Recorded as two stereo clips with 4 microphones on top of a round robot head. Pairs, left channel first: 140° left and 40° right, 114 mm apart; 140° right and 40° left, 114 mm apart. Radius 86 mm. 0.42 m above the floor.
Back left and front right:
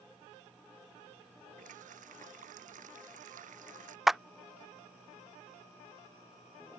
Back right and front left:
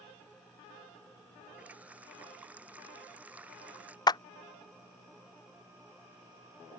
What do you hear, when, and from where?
1.6 s a running tap: 35° right
4.1 s a clap: 130° right